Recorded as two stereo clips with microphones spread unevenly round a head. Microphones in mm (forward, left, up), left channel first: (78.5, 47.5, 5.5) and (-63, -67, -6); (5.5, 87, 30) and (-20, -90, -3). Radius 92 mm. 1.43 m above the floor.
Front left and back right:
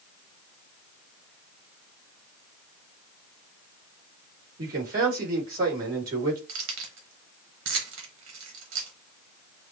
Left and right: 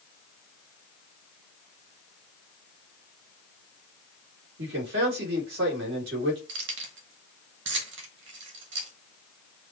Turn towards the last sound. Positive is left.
turn(degrees=-125)